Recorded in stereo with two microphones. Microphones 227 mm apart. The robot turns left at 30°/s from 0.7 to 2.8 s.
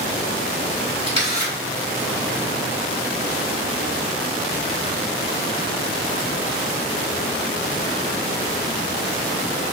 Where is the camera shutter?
30° right (ahead or behind), 1.5 m; by 1.5 s 15° right (ahead or behind), 1.5 m.